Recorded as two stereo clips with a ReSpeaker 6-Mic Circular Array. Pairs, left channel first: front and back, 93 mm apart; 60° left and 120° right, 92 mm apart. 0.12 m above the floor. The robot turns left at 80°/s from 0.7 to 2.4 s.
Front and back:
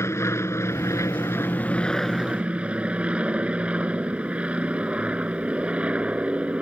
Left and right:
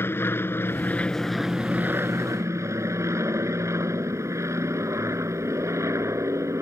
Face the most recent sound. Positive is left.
turn(degrees=-115)